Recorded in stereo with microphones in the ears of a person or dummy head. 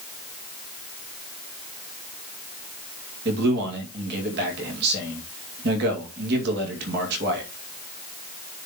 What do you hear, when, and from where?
3.2 s a man speaking: 65° right (ahead or behind), 2.5 m